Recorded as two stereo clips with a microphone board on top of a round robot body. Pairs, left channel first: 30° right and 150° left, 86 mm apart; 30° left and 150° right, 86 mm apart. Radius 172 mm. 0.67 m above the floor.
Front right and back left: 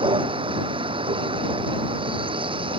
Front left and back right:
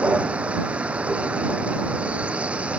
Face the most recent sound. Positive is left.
turn(degrees=135)